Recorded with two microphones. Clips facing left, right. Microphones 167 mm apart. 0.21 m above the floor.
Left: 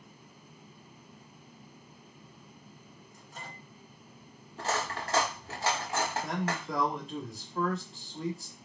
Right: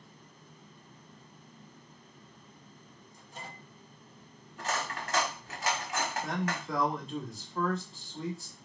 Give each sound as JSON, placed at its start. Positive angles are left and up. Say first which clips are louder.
{"t": 3.1, "sound": "a microwave", "louder": "right 1 dB", "side_deg": -25, "distance_m": 2.5}
{"t": 4.6, "sound": "cutlery clinking", "louder": "left 2 dB", "side_deg": 35, "distance_m": 0.9}
{"t": 6.2, "sound": "a man speaking", "louder": "left 1 dB", "side_deg": 0, "distance_m": 1.3}